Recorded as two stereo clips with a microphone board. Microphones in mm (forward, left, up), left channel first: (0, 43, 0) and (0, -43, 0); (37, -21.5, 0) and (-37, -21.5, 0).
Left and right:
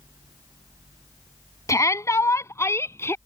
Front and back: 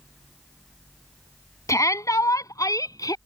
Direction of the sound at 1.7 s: 40° left.